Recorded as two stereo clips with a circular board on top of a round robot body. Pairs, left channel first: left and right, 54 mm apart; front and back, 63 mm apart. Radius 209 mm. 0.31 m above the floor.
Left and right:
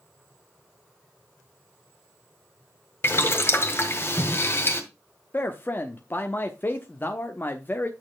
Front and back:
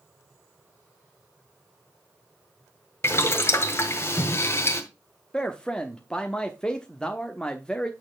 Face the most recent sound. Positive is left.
turn(degrees=70)